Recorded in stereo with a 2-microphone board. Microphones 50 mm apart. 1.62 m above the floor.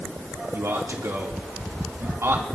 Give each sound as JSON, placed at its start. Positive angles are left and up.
{"t": 0.5, "sound": "a man speaking", "side_deg": -70, "distance_m": 3.5}